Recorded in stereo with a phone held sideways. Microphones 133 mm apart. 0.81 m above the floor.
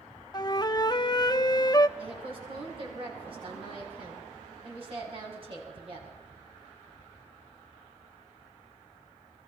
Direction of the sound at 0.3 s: 30° left (ahead or behind).